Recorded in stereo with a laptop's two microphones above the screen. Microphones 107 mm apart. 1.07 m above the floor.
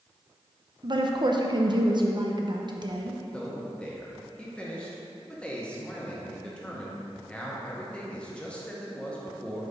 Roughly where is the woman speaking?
Right.